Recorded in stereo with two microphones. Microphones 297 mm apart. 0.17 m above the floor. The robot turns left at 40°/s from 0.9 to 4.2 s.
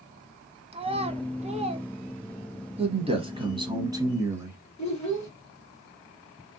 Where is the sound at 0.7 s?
20° right (ahead or behind), 0.7 m.